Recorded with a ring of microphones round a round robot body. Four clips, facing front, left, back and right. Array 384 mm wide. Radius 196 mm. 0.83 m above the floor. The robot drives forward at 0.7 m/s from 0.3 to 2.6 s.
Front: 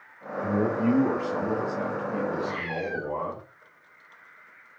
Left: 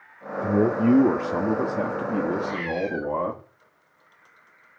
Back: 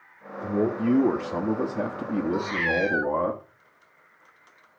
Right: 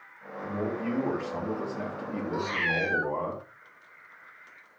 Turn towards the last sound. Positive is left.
turn(degrees=-145)